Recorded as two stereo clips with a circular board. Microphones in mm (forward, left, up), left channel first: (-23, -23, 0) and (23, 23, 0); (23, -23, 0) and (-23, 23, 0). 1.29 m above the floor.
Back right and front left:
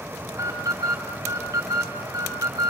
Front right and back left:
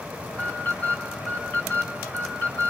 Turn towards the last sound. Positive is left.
turn(degrees=20)